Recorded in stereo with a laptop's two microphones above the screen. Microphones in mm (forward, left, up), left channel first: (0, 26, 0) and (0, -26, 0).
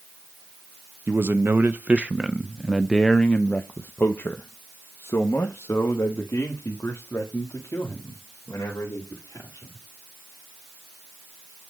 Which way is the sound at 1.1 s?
50° right (ahead or behind).